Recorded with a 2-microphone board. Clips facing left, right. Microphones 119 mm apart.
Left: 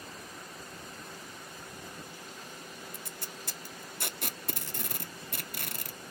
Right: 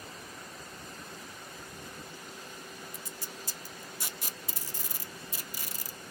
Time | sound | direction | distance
2.9 | tape being pulled | 65° left (ahead or behind) | 0.8 m